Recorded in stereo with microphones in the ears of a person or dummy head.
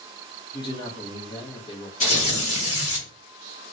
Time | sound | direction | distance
0.5 | a man speaking | 25° left (ahead or behind) | 1.6 m
2.0 | tearing paper | 40° left (ahead or behind) | 1.7 m